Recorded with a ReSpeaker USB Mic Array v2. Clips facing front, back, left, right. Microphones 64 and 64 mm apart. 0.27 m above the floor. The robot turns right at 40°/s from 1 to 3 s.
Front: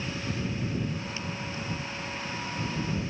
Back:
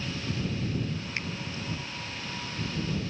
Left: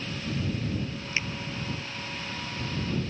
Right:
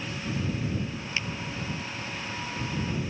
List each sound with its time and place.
1.2 s a finger snap: 155° left; by 1.3 s 160° left